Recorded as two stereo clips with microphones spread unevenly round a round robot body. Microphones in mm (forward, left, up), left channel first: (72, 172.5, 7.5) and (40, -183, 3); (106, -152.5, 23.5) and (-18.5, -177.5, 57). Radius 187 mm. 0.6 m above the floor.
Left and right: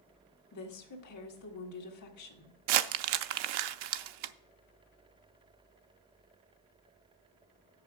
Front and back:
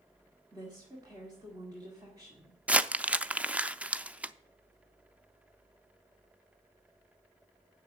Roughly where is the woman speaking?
Behind left.